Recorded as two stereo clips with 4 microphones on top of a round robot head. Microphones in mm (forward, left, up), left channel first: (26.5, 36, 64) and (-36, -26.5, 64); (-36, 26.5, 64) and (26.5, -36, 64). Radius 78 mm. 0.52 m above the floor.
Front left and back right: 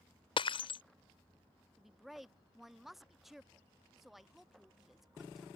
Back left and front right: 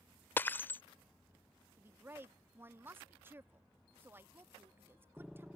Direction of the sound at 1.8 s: 50° right.